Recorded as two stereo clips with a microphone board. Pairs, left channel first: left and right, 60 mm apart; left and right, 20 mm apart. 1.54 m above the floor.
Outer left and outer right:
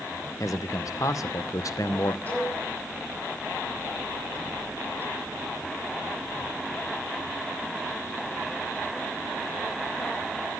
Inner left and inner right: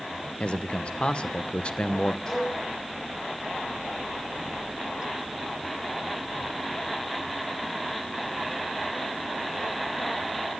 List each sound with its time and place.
0.4 s a man speaking: 65° left (ahead or behind), 0.8 m
2.3 s a cowbell: 30° left (ahead or behind), 9 m